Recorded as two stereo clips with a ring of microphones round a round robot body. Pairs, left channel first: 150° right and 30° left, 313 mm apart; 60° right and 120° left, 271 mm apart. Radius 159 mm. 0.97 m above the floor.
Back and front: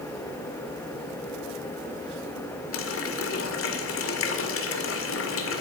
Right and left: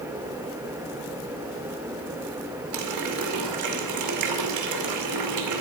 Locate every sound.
2.7 s a running tap: 160° left, 2 m